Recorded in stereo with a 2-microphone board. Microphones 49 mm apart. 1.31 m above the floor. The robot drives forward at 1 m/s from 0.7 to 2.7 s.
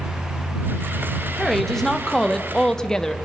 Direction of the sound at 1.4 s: 5° left (ahead or behind).